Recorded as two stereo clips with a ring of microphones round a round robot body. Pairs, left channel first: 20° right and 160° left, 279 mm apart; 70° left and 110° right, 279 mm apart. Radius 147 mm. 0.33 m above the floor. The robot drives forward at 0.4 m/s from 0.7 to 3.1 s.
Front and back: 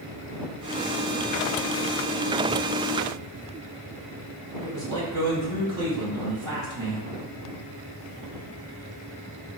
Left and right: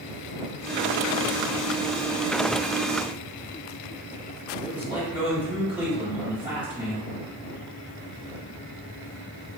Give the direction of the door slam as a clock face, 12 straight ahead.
No door slam in this recording.